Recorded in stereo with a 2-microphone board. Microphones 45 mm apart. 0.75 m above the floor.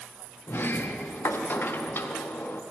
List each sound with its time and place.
0.5 s a sliding door: 55° left (ahead or behind), 0.6 m